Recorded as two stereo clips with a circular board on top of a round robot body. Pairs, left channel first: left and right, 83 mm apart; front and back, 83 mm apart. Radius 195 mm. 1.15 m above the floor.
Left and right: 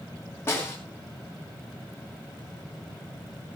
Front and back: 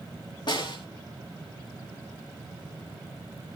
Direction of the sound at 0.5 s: 30° left.